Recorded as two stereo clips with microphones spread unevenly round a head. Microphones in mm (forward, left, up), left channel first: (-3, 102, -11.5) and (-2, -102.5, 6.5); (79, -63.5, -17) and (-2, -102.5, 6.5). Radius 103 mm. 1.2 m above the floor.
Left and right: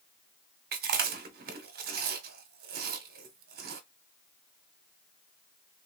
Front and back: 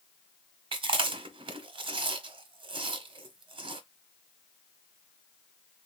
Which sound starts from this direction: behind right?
Chewing, at 0.7 s.